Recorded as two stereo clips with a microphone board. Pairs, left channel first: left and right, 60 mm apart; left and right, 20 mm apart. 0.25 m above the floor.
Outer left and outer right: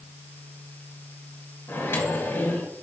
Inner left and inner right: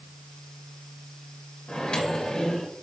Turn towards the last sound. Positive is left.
turn(degrees=40)  # may be behind; listen again after turning